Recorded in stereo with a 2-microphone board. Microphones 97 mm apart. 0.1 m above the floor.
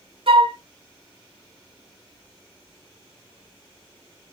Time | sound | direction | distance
0.3 | a flute | 65° right (ahead or behind) | 0.5 m